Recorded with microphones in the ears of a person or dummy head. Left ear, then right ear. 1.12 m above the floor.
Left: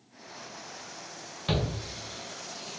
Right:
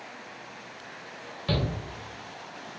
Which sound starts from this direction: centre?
A shout, at 1.5 s.